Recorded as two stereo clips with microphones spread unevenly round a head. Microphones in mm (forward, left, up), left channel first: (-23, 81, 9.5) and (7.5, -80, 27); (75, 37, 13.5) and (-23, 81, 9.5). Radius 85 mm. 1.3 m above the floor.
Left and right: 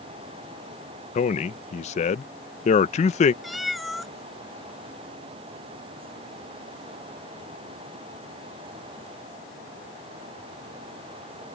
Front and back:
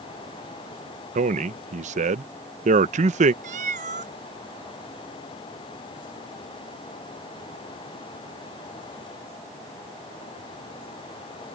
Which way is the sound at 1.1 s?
155° left.